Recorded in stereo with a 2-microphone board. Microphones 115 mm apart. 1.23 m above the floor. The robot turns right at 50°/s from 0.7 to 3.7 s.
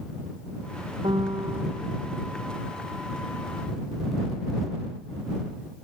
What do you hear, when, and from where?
1.0 s a piano: 50° right; by 1.9 s 10° right